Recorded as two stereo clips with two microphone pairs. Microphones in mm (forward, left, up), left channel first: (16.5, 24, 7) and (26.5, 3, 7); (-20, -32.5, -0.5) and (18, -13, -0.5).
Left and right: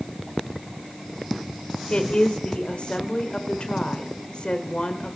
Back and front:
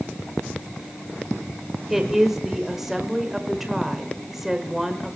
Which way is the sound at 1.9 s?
110° left.